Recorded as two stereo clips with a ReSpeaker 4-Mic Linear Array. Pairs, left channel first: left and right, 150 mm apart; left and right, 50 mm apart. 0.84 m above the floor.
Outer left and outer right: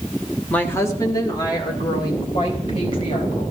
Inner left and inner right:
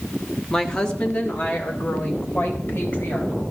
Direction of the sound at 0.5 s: 10° left (ahead or behind).